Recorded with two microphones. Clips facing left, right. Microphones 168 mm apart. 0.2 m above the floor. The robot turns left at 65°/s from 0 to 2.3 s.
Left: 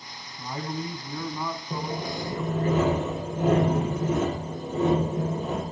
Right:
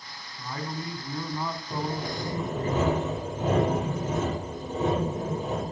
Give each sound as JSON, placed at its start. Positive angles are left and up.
{"t": 0.4, "sound": "a man speaking", "side_deg": 25, "distance_m": 1.7}
{"t": 1.7, "sound": "sawing", "azimuth_deg": 140, "distance_m": 5.0}